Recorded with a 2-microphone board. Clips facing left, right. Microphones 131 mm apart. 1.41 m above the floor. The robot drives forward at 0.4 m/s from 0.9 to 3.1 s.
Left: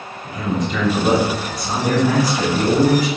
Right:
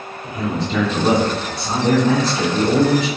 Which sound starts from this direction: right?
A man speaking, at 0.2 s.